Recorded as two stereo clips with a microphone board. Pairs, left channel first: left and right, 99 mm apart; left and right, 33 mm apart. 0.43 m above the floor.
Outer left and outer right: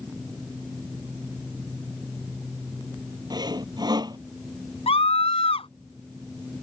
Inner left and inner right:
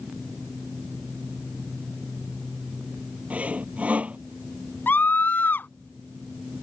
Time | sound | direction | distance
3.3 | sawing | 45° right (ahead or behind) | ?
4.9 | a scream | 75° left (ahead or behind) | ?